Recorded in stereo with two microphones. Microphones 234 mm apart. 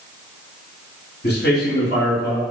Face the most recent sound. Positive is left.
turn(degrees=45)  # may be behind; listen again after turning